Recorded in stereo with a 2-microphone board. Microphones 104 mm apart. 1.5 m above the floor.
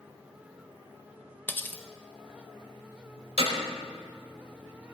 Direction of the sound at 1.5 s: 15° left (ahead or behind).